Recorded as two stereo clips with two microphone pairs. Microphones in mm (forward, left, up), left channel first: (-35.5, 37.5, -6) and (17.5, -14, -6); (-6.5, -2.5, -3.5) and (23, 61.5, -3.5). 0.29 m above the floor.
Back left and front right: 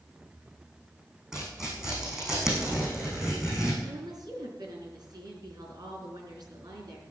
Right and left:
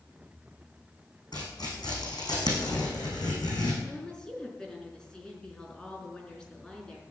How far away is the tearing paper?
About 6 m.